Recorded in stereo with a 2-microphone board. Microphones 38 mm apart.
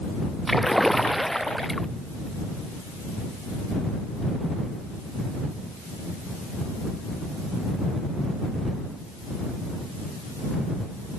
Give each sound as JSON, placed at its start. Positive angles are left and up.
{"t": 0.5, "sound": "a splash", "side_deg": 5}